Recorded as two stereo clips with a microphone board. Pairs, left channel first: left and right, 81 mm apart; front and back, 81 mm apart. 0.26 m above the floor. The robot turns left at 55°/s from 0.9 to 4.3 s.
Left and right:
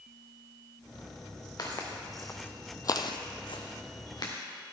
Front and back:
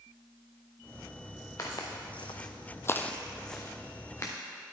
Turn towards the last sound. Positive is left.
turn(degrees=55)